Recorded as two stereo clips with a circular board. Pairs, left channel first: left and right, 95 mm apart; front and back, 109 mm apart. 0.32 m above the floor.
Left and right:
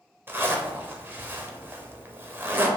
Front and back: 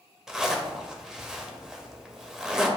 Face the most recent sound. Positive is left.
turn(degrees=-100)